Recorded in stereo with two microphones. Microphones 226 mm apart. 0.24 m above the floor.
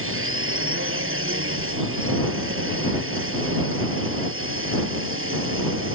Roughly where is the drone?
Right.